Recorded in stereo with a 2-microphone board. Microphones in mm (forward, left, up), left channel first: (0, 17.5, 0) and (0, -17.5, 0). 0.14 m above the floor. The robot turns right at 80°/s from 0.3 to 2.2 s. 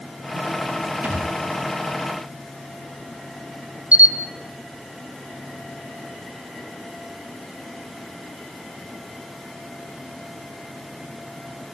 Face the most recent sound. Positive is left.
turn(degrees=-45)  # may be behind; listen again after turning